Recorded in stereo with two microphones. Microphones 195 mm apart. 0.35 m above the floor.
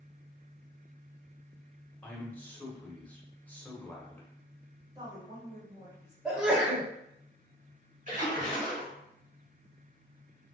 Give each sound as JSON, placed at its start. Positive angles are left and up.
{"t": 2.0, "sound": "a man speaking", "side_deg": 10, "distance_m": 1.0}
{"t": 5.0, "sound": "a woman speaking", "side_deg": -20, "distance_m": 1.4}
{"t": 6.2, "sound": "a sneeze", "side_deg": -5, "distance_m": 0.9}
{"t": 8.1, "sound": "a splash", "side_deg": -40, "distance_m": 1.1}